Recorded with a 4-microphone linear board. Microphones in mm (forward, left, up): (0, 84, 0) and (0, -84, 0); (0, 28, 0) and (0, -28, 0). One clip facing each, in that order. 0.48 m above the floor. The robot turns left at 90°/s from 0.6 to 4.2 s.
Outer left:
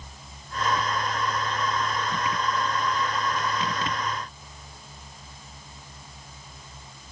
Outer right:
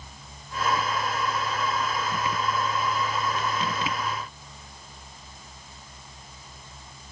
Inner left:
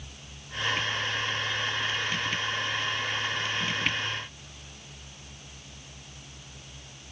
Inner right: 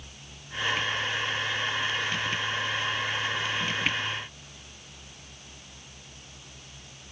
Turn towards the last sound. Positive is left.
No sound to turn to.